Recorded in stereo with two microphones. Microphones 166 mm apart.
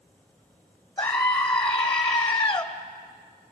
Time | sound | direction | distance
1.0 | a scream | 10° left (ahead or behind) | 1.3 m